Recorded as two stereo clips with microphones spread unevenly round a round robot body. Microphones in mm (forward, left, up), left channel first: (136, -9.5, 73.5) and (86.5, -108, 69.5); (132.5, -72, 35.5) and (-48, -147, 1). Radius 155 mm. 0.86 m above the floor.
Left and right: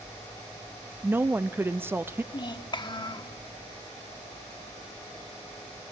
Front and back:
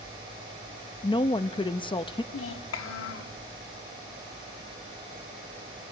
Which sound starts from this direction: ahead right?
A woman speaking, at 1.0 s.